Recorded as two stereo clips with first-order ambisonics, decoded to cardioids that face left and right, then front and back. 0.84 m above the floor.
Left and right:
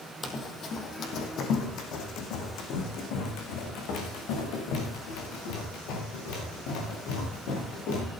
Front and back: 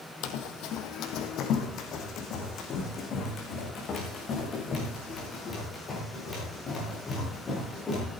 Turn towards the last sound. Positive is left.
turn(degrees=70)